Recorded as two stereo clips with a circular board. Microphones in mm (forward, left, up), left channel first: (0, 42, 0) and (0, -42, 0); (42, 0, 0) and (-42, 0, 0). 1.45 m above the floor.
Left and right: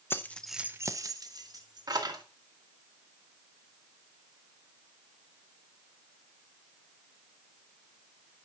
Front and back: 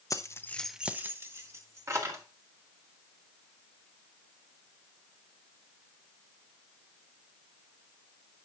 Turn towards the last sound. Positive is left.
turn(degrees=-130)